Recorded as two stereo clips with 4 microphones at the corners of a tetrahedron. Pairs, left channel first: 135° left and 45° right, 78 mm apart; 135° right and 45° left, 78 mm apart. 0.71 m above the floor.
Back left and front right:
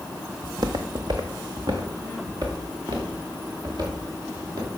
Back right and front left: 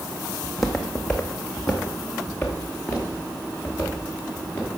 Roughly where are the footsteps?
Ahead right.